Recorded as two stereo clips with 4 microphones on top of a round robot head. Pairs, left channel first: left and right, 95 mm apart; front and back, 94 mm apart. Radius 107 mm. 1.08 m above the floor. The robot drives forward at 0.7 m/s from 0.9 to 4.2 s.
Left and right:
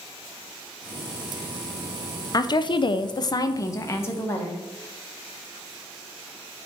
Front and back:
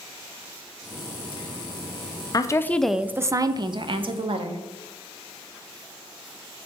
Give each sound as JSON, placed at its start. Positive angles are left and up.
{"t": 2.3, "sound": "a woman speaking", "azimuth_deg": 45, "distance_m": 0.7}